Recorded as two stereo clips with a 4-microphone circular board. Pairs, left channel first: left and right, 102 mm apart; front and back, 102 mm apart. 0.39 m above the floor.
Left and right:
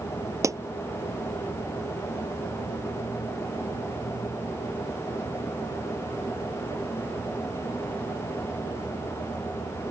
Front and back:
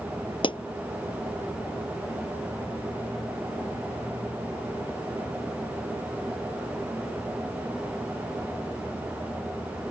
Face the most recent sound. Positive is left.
turn(degrees=-30)